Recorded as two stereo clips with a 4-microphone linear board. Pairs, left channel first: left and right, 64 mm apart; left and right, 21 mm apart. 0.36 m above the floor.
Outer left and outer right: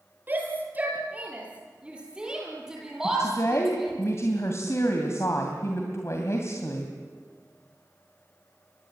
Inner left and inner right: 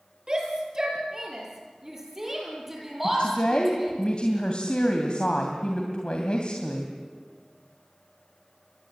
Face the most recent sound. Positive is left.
turn(degrees=45)  # may be behind; listen again after turning